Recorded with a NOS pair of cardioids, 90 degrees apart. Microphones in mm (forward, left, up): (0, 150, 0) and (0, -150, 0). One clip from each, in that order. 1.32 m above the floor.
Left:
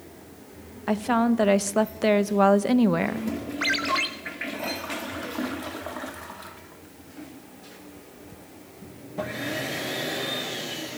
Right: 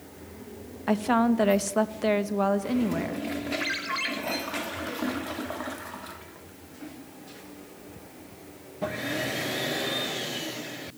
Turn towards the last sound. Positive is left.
turn(degrees=45)